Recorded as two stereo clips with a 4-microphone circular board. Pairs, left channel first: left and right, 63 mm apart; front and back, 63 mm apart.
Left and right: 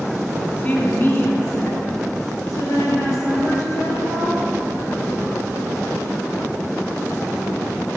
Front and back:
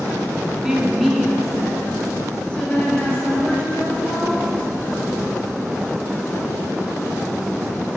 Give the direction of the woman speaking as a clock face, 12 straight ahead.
8 o'clock.